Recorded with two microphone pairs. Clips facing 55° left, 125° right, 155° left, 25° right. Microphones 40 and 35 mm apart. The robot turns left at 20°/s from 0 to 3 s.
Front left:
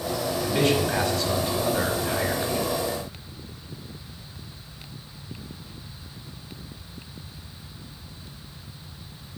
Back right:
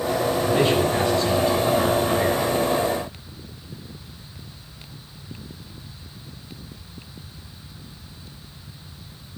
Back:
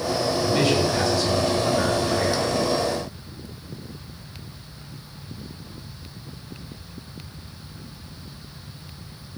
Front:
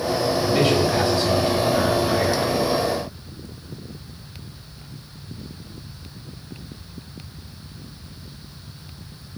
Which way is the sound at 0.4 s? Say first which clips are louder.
Back right 2 dB, front 2 dB; 50° left.